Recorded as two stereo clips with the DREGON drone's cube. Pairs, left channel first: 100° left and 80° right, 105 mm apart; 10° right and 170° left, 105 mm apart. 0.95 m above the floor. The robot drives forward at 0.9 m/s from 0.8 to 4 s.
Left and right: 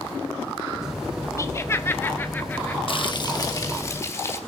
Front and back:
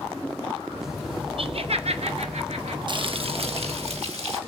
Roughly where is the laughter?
Behind left.